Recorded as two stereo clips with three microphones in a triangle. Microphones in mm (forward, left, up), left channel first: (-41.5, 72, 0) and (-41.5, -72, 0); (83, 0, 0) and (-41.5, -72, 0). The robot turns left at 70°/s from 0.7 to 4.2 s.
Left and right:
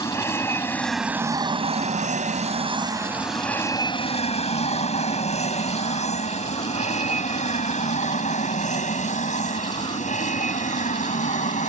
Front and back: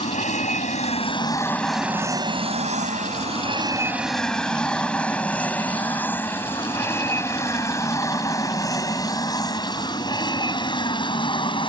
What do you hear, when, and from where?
0.0 s an aircraft: 20° left; by 11.7 s 80° left